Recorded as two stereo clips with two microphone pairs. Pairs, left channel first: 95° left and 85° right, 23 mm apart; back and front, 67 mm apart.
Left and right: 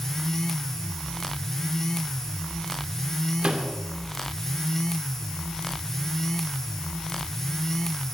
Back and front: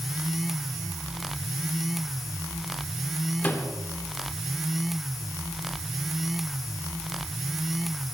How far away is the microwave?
About 2.5 m.